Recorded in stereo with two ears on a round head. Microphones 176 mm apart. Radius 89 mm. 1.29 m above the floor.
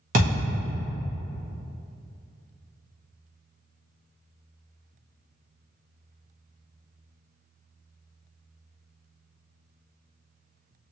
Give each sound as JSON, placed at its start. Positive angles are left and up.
{"t": 0.1, "sound": "a thud", "side_deg": -40, "distance_m": 0.7}